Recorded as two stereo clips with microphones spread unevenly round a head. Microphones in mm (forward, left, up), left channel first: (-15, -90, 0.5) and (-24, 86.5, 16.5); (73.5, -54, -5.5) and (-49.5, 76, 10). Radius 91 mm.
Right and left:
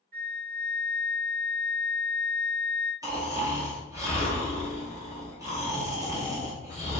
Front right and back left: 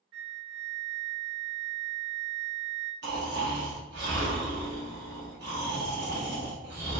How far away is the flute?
About 2.0 m.